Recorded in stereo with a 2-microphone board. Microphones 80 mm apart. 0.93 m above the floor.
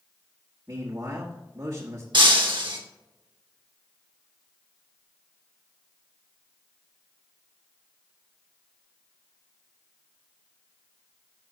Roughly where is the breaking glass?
Right.